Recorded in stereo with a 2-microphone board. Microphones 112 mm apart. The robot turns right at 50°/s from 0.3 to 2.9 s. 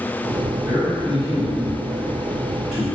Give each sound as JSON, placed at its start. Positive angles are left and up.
{"t": 0.6, "sound": "a man speaking", "azimuth_deg": -30, "distance_m": 1.8}